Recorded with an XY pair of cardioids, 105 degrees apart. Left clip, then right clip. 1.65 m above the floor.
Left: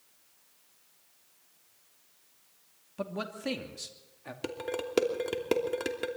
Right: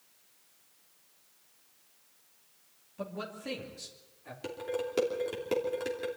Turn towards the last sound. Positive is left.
turn(degrees=45)